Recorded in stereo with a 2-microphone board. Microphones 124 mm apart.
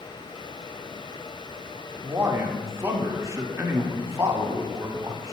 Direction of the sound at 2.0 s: 20° right (ahead or behind).